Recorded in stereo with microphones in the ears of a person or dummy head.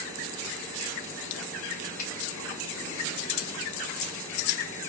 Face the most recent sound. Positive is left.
turn(degrees=50)  # may be behind; listen again after turning